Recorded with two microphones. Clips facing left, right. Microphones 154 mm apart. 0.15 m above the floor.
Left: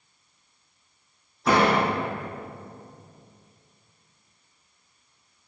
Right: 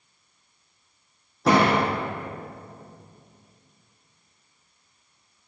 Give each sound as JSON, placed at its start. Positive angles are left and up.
{"t": 1.4, "sound": "a door slam", "side_deg": -80, "distance_m": 4.5}